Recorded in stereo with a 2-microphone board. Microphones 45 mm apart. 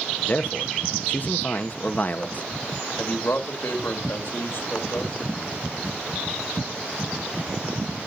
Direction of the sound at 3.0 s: 55° left (ahead or behind).